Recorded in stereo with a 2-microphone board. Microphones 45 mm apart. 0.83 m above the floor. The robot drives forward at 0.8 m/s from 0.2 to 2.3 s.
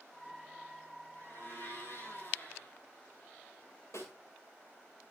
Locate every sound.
1.1 s a blender: 50° left (ahead or behind), 7.5 m; by 2.8 s 45° left (ahead or behind), 8.5 m
3.9 s a snare drum: 75° left (ahead or behind), 7 m